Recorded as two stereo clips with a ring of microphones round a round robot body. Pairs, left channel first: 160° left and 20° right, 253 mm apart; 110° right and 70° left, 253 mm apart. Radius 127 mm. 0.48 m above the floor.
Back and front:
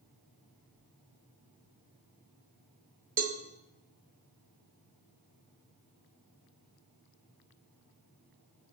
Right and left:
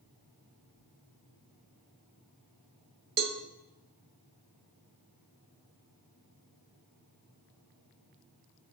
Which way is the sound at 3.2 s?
25° left.